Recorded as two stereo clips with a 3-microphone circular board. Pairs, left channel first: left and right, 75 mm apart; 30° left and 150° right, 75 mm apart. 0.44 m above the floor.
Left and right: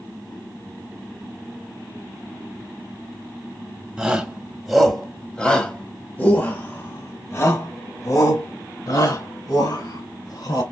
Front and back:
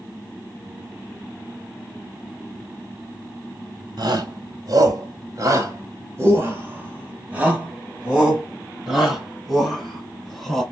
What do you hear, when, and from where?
4.0 s a shout: 170° right, 2.5 m; by 10.6 s 115° left, 4.5 m